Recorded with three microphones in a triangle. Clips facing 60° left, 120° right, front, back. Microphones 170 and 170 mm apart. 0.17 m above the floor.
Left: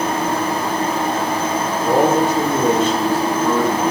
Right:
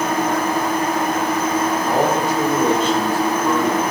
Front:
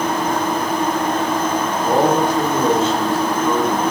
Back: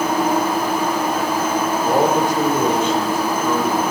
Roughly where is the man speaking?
Left.